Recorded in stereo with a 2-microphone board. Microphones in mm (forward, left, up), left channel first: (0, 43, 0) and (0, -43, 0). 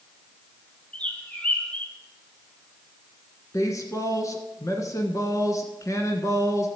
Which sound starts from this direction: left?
A woman speaking, at 3.5 s.